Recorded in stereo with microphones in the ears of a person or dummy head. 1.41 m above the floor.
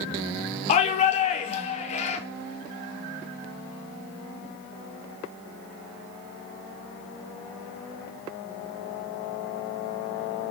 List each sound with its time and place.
0.7 s a shout: 35° left (ahead or behind), 0.8 m